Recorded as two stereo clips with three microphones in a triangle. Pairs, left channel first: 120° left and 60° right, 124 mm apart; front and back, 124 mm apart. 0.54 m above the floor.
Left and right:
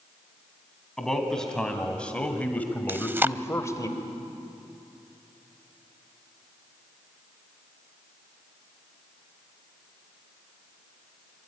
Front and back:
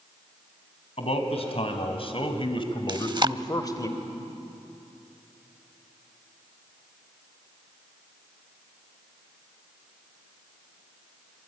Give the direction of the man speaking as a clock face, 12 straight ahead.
11 o'clock.